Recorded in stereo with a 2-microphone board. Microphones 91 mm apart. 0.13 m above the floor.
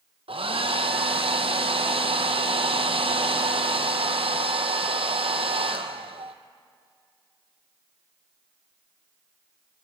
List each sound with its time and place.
0.3 s a hair dryer: 80° right, 0.9 m